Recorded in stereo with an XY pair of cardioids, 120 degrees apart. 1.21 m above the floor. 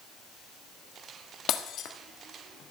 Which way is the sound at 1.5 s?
65° left.